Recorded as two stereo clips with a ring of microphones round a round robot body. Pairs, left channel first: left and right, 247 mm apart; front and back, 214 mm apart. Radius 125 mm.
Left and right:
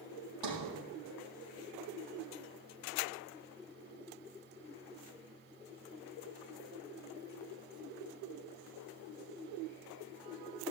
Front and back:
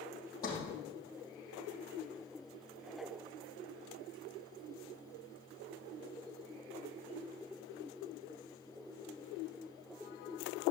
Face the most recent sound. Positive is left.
turn(degrees=-75)